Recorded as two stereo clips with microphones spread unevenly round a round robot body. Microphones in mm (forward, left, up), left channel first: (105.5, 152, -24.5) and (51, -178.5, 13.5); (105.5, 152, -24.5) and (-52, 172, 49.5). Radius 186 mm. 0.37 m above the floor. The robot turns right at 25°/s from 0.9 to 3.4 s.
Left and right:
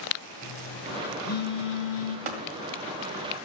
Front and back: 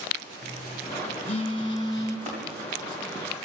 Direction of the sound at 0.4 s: 30° left.